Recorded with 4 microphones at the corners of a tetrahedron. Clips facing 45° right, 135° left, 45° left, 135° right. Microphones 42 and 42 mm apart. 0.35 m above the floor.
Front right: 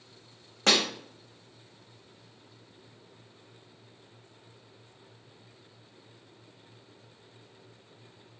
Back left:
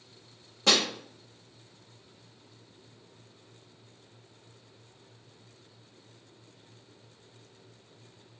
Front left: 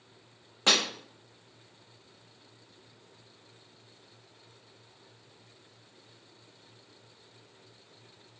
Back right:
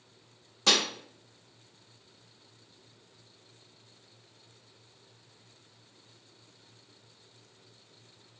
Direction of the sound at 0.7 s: 15° right.